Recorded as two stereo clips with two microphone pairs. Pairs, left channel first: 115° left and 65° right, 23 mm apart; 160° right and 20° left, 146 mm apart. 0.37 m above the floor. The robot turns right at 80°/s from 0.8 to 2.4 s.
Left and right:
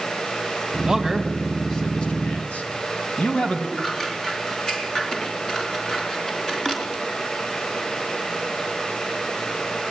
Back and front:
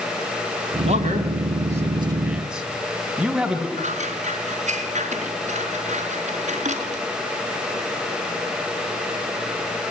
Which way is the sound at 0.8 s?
20° right.